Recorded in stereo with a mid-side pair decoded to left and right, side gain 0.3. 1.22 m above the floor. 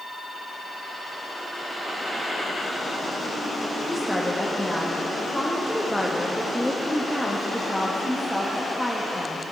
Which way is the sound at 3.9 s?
5° right.